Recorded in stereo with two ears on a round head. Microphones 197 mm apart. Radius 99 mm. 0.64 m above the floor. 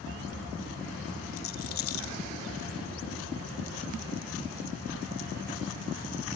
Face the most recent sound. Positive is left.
turn(degrees=65)  # may be behind; listen again after turning